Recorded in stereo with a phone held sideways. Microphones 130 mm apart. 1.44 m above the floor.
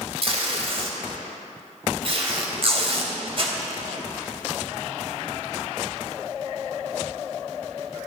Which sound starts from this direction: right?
Tape being pulled, at 0.2 s.